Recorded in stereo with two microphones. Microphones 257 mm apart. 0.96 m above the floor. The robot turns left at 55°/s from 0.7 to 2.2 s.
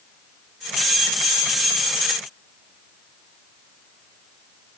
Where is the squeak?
I don't hear a squeak.